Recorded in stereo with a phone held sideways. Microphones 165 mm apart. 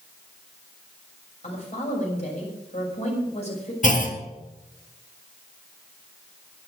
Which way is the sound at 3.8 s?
50° left (ahead or behind).